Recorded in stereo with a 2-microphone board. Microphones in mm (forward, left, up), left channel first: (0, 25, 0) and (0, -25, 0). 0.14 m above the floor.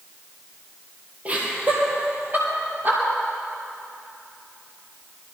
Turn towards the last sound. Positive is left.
turn(degrees=-45)  # may be behind; listen again after turning